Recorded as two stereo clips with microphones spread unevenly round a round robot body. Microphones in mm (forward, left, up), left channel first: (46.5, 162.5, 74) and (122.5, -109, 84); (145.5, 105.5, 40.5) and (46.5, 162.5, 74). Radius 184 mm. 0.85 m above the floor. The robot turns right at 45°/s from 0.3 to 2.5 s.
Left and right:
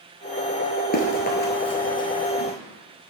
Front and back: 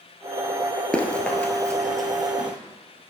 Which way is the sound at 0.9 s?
70° left.